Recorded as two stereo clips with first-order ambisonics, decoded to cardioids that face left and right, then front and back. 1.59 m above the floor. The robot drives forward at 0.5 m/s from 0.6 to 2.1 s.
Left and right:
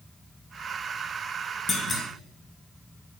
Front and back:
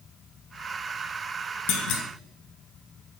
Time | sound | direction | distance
1.7 | a clunk | 15° left | 0.6 m